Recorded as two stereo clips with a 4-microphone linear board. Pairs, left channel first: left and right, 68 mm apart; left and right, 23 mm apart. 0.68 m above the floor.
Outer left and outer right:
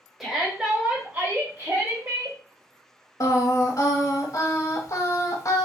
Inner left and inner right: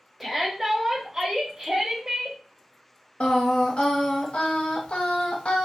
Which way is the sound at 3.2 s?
55° left (ahead or behind).